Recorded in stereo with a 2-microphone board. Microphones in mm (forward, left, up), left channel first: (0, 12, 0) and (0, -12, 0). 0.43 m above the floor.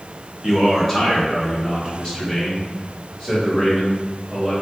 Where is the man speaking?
15° left (ahead or behind), 1.4 m; by 4.5 s 40° left (ahead or behind), 2.5 m.